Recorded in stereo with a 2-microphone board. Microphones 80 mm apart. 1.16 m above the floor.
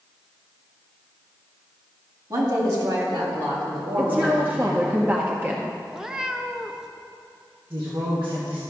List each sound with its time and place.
2.3 s a woman speaking: 50° right (ahead or behind), 2.5 m; by 5.0 s 75° right (ahead or behind), 3 m
4.0 s a woman speaking: 20° right (ahead or behind), 0.6 m
5.9 s a cat meowing: 5° right (ahead or behind), 0.5 m
7.7 s a woman speaking: 90° right, 1.3 m